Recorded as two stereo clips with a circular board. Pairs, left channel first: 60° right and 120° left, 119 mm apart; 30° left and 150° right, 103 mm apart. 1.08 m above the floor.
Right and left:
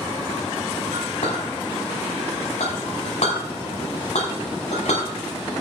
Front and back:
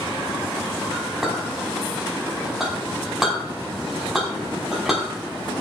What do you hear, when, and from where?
0.9 s a clink: 65° right, 6 m